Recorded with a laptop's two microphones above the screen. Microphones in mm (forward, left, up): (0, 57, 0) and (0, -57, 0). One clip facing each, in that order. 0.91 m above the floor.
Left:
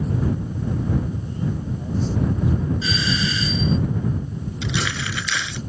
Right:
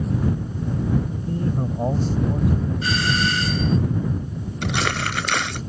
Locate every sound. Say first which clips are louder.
1.3 s a man speaking: right 3 dB; 70° right (ahead or behind); by 2.7 s 60° right (ahead or behind)
2.8 s a doorbell: right 2 dB; 55° right (ahead or behind)
4.6 s crumpling: right 3 dB; 55° right (ahead or behind)